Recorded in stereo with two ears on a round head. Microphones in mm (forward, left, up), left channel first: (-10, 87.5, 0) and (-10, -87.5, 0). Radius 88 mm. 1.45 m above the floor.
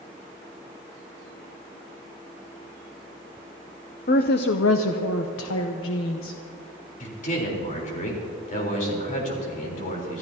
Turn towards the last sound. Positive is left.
turn(degrees=45)  # may be behind; listen again after turning